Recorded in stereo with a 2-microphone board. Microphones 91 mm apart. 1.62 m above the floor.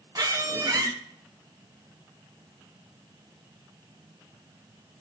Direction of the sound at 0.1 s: 40° right (ahead or behind).